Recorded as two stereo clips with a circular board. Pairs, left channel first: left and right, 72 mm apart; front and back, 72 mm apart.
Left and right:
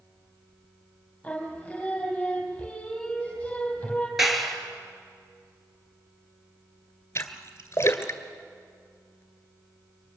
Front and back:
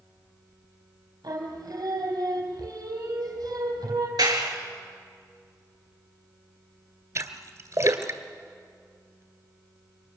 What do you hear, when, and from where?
1.2 s singing: 165° left, 4 m
4.2 s a clap: 175° right, 3 m
7.2 s a splash: 140° left, 1.8 m